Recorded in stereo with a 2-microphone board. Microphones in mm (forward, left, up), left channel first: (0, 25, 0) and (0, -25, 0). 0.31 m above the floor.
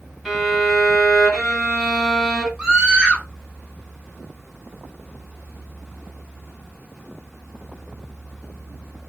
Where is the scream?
15° right (ahead or behind), 1.5 m.